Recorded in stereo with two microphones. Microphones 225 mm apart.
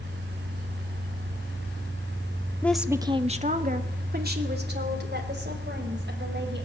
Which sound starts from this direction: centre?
A woman speaking, at 2.6 s.